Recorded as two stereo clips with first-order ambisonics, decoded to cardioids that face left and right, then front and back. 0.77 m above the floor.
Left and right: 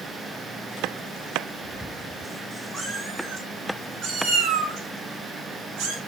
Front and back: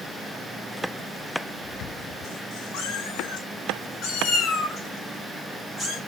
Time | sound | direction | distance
2.7 | a cat meowing | 10° right | 1.6 m